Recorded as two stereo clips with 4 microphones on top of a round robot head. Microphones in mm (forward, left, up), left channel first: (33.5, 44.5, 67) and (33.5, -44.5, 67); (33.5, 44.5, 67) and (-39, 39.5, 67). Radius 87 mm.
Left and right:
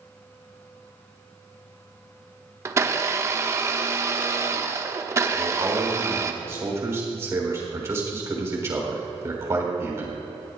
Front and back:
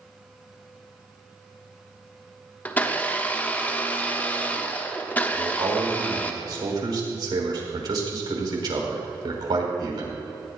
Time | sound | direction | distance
2.6 | a blender | 55° right | 1.2 m
5.3 | a man speaking | 150° right | 3.5 m